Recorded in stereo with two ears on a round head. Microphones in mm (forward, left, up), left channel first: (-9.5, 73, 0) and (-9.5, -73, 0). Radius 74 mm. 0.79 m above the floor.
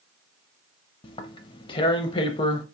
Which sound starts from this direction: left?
Tearing paper, at 1.0 s.